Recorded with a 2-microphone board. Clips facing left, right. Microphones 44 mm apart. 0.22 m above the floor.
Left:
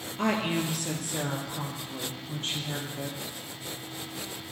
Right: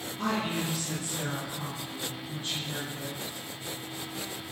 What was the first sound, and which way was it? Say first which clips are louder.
A woman speaking: left 3 dB; 55° left (ahead or behind).